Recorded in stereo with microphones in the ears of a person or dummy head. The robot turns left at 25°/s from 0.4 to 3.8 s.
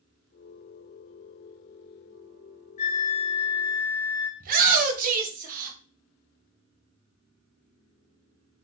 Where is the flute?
45° left (ahead or behind), 1.0 m; by 4.3 s 20° left (ahead or behind), 1.0 m.